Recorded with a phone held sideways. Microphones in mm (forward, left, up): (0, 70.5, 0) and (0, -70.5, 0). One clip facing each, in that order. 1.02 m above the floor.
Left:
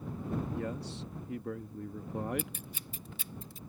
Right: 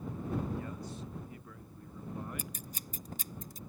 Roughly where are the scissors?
Right.